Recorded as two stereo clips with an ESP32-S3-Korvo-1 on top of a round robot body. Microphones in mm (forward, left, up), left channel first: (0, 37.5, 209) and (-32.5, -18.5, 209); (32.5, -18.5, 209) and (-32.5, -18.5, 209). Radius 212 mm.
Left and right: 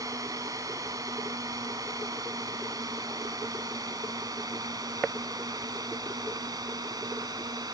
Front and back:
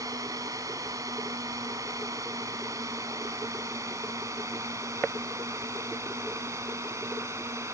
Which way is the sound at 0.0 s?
150° right.